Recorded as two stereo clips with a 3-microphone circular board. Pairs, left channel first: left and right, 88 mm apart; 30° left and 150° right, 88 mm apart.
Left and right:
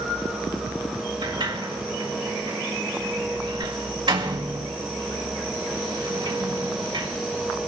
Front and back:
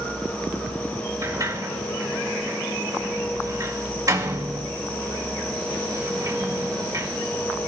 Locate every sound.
1.2 s a sliding door: 105° right, 1.9 m